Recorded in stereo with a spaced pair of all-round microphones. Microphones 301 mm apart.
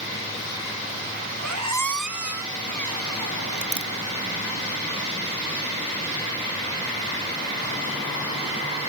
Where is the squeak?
75° right (ahead or behind), 1.0 m.